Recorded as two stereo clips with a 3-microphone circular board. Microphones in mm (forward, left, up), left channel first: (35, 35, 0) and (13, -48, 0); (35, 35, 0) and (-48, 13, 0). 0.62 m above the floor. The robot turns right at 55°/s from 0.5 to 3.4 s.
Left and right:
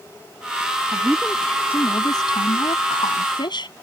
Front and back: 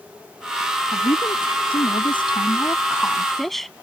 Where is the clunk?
No clunk in this recording.